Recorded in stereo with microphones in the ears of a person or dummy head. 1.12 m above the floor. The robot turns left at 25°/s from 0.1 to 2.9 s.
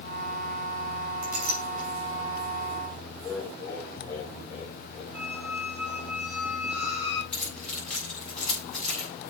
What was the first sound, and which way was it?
A clink, 60° right (ahead or behind).